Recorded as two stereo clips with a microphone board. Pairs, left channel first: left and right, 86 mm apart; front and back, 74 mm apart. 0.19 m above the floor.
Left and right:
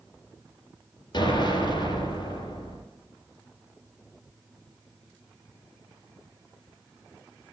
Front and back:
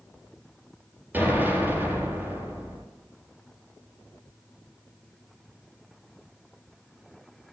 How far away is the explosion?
About 4.5 m.